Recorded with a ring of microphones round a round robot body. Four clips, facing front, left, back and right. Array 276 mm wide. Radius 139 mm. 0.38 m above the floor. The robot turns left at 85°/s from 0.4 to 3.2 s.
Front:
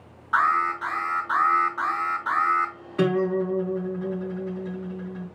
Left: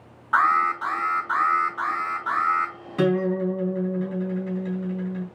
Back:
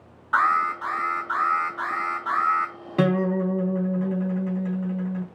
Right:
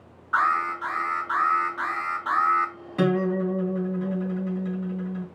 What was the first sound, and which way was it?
An alarm, 100° left.